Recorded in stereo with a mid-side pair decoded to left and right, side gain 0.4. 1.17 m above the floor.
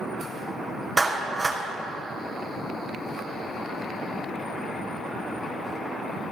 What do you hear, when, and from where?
1.0 s a clap: 25° right, 3.5 m